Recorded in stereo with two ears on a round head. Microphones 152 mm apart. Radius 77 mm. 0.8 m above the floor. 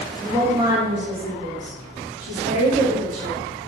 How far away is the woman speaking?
About 1.0 m.